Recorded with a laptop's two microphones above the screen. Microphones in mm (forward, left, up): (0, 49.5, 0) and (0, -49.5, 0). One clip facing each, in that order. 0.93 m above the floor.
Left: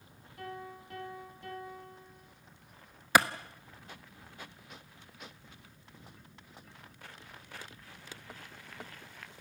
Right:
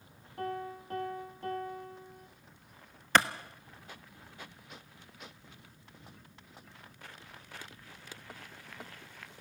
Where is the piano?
40° right (ahead or behind), 4 m.